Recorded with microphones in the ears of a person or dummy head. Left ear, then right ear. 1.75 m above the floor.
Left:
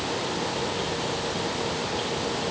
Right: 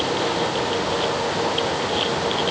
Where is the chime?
I don't hear a chime.